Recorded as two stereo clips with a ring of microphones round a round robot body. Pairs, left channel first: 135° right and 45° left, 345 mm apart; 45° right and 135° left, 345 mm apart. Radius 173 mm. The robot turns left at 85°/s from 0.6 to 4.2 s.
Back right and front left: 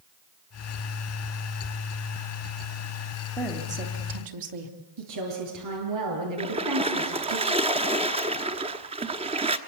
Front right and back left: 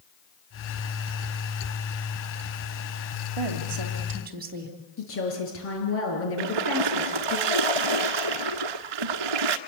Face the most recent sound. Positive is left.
turn(degrees=120)